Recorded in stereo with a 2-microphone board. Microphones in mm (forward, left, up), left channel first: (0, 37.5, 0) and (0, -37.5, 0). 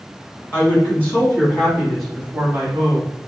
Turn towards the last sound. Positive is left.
turn(degrees=-30)  # may be behind; listen again after turning